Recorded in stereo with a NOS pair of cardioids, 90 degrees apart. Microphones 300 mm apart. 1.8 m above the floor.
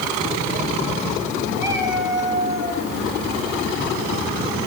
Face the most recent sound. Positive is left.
turn(degrees=-40)